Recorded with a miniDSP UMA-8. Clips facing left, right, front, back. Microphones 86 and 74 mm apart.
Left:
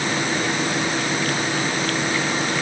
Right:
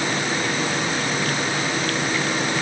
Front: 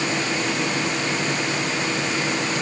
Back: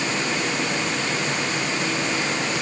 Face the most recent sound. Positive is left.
No sound to turn to.